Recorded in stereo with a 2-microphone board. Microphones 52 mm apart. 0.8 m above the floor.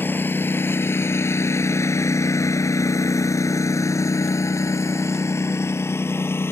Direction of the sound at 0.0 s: 40° left (ahead or behind).